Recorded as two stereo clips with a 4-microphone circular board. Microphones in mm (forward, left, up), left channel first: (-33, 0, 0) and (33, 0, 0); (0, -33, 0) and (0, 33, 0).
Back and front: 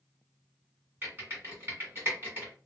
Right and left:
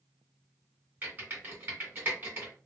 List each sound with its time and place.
1.0 s typing on a keyboard: 45° left, 1.9 m